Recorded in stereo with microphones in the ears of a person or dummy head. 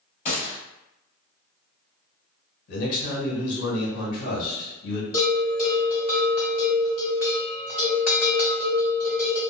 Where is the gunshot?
35° left (ahead or behind), 1.8 m.